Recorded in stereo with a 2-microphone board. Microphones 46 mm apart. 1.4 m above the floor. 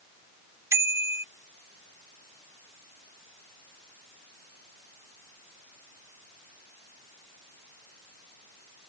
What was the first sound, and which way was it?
A bicycle bell, 75° right (ahead or behind).